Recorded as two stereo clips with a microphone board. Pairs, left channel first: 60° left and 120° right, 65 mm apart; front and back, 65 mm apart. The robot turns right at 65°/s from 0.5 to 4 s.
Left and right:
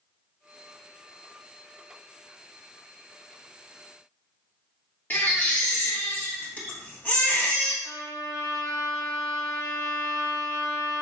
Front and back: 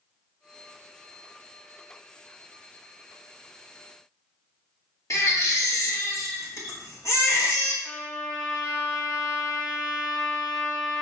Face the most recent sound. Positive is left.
turn(degrees=65)